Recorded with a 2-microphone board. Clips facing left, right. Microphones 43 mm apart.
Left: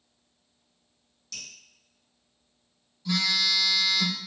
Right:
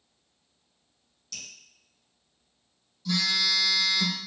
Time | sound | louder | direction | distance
1.3 | dripping | left 1 dB | centre (ahead or behind) | 1.3 m
3.0 | a phone buzzing | left 1 dB | 15° left (ahead or behind) | 1.3 m